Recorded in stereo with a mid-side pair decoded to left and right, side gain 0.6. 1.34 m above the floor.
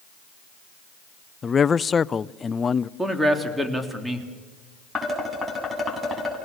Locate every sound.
1.4 s a man speaking: 30° left, 0.5 m
3.0 s a man speaking: 5° right, 3 m
5.0 s dishes clattering: 10° left, 8 m